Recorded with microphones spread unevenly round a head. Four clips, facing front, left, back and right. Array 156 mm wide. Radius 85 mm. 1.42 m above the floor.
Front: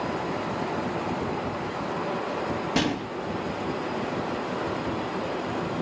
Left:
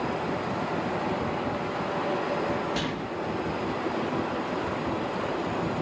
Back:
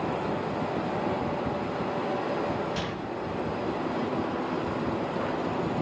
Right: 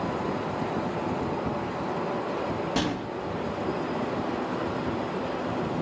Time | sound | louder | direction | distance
2.8 | a gunshot | right 2 dB, front 6 dB | 20° right | 5.5 m